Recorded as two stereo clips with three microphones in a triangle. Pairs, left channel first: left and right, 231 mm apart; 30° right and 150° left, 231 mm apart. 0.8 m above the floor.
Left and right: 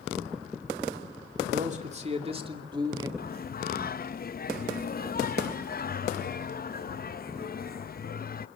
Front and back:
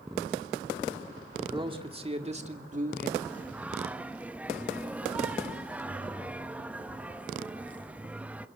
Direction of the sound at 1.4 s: 140° right.